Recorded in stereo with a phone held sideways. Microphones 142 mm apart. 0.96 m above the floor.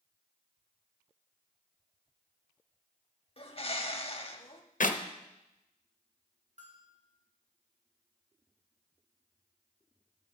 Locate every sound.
3.4 s a bird: 45° left (ahead or behind), 0.9 m
4.8 s a clap: 65° left (ahead or behind), 0.7 m
6.6 s a bell: 55° right (ahead or behind), 1.8 m